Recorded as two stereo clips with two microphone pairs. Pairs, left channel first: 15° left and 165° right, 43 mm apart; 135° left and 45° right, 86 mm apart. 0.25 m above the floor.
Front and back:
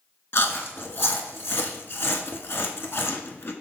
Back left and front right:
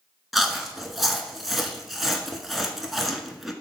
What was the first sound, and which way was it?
Chewing, 40° left.